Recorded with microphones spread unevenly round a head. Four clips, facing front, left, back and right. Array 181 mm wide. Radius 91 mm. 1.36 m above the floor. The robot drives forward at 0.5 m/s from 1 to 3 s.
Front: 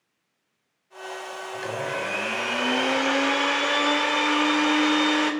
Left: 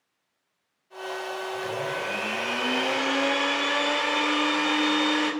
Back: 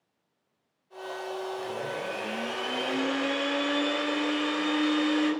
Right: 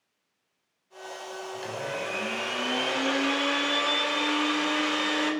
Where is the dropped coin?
No dropped coin in this recording.